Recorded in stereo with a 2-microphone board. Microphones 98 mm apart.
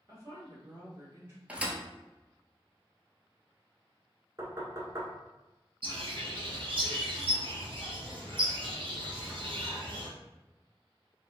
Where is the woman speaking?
40° right (ahead or behind), 1.6 m; by 1.4 s 25° right (ahead or behind), 1.1 m.